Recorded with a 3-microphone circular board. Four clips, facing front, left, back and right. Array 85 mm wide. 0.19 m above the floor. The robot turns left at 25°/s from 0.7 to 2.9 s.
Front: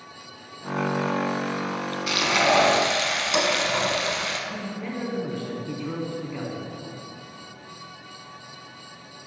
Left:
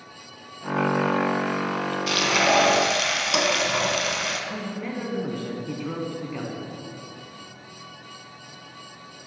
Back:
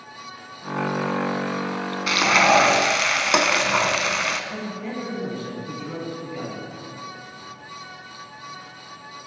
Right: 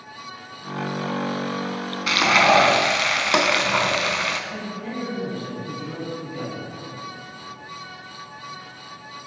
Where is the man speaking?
80° left, 2 m.